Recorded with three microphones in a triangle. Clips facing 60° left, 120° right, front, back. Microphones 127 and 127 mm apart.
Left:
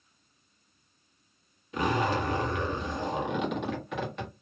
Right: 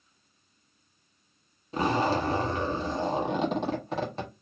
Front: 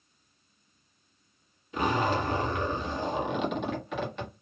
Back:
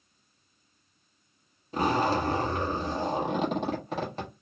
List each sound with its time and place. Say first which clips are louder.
1.7 s a zipper: right 2 dB, back 2 dB; 155° right, 1.4 m